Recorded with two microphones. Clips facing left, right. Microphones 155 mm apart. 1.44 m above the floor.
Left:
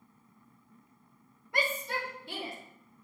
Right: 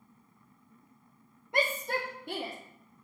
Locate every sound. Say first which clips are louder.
1.5 s a shout: right 3 dB; 25° right (ahead or behind), 0.8 m; by 2.5 s 70° right (ahead or behind), 1.4 m